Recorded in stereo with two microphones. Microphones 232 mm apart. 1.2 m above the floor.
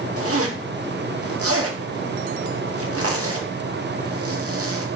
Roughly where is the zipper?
Right.